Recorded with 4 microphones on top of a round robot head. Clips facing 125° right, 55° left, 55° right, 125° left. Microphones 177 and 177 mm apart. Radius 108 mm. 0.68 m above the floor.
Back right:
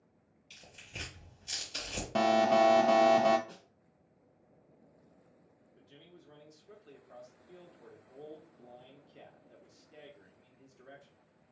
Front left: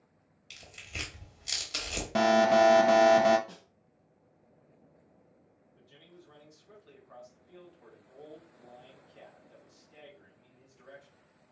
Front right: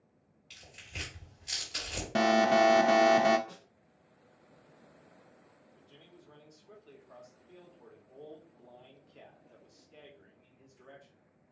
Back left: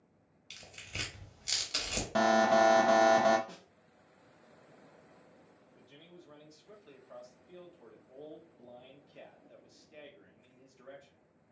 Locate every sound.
0.5 s tearing paper: 80° left, 1.2 m
2.1 s an alarm: 15° right, 0.5 m
3.5 s a snare drum: 30° left, 1.5 m
5.8 s a man speaking: 160° right, 0.9 m